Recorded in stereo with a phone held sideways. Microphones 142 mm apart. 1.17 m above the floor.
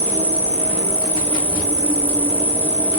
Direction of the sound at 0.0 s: 40° right (ahead or behind).